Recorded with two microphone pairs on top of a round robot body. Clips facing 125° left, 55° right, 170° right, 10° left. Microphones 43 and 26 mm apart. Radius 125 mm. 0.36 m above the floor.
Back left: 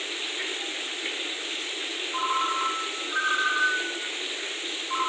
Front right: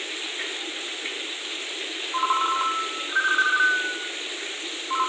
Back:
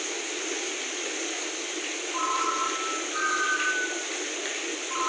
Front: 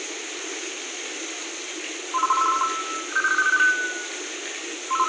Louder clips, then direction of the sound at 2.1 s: Front right 4 dB, front 7 dB; 20° left.